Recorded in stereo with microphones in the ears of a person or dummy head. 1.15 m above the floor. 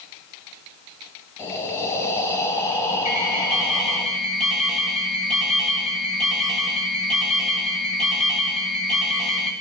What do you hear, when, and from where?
1.4 s breathing: 15° left (ahead or behind), 5.5 m
3.0 s an alarm: centre (ahead or behind), 9 m